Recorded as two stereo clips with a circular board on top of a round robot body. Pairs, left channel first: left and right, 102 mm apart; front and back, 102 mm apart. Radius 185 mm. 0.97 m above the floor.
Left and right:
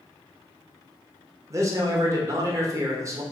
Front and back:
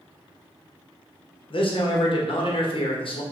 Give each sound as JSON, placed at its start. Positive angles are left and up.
{"t": 1.5, "sound": "a man speaking", "azimuth_deg": -30, "distance_m": 1.1}